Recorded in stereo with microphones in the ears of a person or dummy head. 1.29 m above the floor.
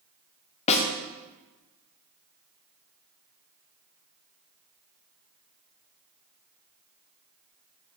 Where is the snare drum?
35° left (ahead or behind), 0.8 m.